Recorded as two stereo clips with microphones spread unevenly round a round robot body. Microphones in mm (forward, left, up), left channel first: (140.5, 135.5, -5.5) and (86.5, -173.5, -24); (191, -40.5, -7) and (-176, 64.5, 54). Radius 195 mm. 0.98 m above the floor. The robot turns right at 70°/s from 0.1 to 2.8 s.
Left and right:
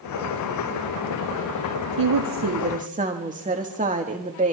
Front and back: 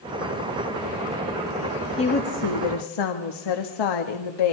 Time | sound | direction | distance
2.0 | a woman speaking | 90° right | 1.5 m